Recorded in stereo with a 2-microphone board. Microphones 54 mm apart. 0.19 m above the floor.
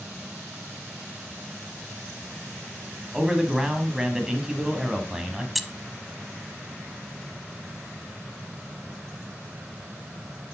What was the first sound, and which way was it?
A man speaking, 10° right (ahead or behind).